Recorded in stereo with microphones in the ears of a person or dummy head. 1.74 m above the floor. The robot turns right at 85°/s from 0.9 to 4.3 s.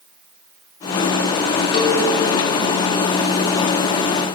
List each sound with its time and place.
1.7 s a cowbell: 25° left (ahead or behind), 1.1 m; by 2.0 s 45° left (ahead or behind), 1.1 m